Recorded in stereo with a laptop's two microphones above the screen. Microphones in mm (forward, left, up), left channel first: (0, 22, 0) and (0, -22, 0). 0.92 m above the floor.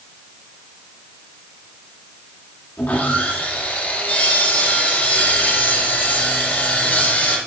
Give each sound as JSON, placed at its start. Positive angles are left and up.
{"t": 2.8, "sound": "sawing", "side_deg": 45, "distance_m": 1.9}